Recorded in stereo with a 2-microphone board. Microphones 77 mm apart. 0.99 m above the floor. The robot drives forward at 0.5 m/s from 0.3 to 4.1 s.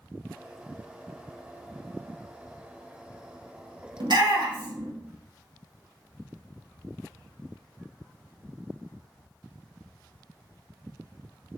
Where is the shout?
65° right (ahead or behind), 1.0 m.